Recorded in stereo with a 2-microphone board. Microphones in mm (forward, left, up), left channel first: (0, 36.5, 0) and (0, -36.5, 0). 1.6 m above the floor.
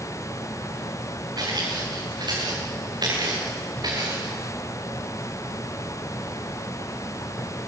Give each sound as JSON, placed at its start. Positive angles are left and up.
{"t": 1.4, "sound": "footsteps", "side_deg": -75, "distance_m": 7.0}